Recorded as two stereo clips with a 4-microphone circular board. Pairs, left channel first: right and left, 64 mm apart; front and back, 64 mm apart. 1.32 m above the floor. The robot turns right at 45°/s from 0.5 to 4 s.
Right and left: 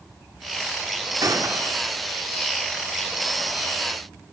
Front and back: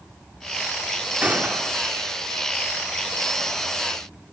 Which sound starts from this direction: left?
A gunshot, at 1.2 s.